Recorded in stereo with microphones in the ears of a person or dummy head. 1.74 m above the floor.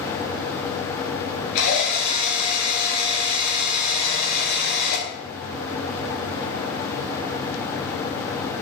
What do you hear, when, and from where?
1.6 s a drill: 75° left (ahead or behind), 4.5 m